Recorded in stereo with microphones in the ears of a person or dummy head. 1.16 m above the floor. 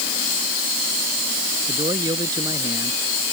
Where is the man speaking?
20° right (ahead or behind); by 3.2 s 15° right (ahead or behind).